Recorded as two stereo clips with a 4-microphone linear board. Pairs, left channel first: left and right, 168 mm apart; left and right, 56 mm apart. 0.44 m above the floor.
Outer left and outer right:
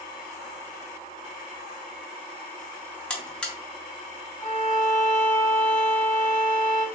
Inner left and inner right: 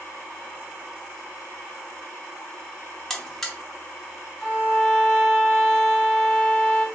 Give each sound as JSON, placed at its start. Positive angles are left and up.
{"t": 3.1, "sound": "a buzzer", "side_deg": 5, "distance_m": 0.6}
{"t": 4.4, "sound": "a violin", "side_deg": -40, "distance_m": 1.8}